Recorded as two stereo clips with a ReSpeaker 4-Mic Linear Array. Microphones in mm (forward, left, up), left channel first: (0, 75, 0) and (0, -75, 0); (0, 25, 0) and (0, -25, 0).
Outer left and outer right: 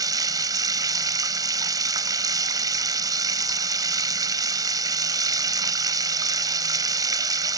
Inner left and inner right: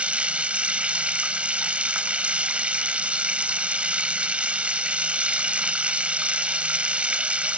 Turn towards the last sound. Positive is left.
turn(degrees=-25)  # may be behind; listen again after turning